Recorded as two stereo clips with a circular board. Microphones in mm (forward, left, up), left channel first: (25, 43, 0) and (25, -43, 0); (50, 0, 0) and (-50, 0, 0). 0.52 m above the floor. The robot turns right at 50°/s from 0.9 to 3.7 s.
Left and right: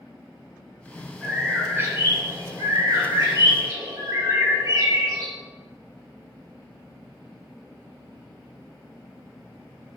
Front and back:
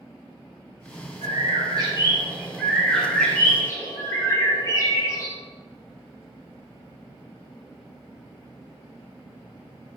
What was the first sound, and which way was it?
A bird, 175° right.